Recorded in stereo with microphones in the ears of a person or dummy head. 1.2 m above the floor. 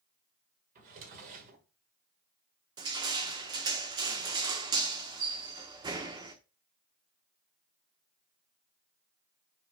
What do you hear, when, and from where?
0.8 s a drawer: 45° right (ahead or behind), 1.6 m
2.8 s crushing: 25° right (ahead or behind), 1.0 m